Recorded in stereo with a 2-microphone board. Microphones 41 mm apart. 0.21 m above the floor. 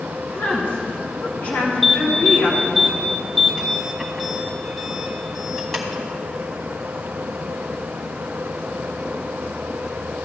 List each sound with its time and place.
0.3 s a woman speaking: 45° left (ahead or behind), 2.5 m
1.8 s an alarm: 5° left (ahead or behind), 1.9 m